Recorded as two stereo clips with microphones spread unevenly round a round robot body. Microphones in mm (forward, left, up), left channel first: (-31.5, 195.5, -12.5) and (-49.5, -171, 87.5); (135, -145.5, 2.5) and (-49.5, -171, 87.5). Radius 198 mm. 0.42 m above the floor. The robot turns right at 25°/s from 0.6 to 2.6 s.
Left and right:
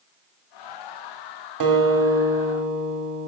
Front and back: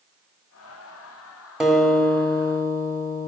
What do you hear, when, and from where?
1.6 s a guitar: 60° right, 1.6 m; by 3.3 s 35° right, 1.6 m